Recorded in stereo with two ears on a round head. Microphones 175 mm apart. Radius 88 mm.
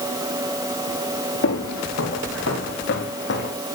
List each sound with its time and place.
1.4 s footsteps: 75° left (ahead or behind), 6 m; by 3.5 s 55° left (ahead or behind), 5.5 m